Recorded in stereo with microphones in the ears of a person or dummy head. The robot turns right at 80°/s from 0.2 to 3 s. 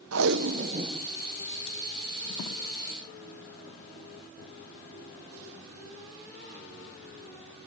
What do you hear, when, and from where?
0.1 s tape being pulled: 80° right, 0.7 m; by 2.6 s 70° left (ahead or behind), 0.7 m